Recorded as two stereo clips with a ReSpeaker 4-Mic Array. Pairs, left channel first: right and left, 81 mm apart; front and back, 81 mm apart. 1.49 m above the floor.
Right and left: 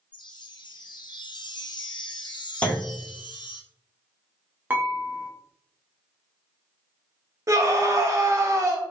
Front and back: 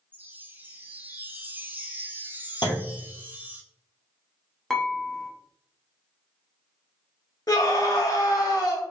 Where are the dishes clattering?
80° left, 0.7 m.